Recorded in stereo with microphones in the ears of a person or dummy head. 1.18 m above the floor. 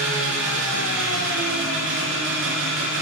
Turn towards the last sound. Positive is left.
turn(degrees=-70)  # may be behind; listen again after turning